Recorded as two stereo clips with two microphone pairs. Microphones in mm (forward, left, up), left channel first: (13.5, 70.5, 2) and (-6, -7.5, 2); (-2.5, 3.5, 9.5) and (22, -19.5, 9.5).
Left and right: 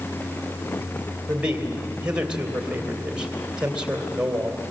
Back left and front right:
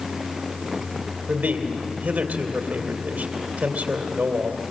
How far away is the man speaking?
About 2.5 m.